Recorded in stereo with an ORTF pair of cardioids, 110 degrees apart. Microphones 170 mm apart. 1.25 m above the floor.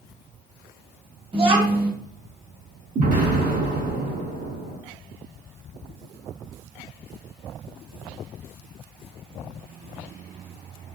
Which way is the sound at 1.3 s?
35° right.